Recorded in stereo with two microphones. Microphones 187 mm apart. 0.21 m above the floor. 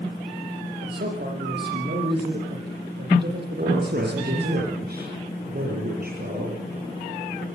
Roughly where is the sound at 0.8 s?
Right.